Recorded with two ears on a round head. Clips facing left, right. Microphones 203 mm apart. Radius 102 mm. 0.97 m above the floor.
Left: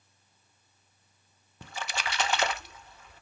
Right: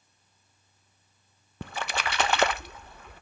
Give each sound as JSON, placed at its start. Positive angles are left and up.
{"t": 1.6, "sound": "a splash", "side_deg": -45, "distance_m": 0.6}